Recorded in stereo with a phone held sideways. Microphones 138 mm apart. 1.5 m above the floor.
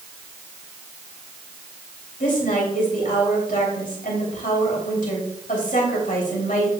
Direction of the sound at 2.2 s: 80° left.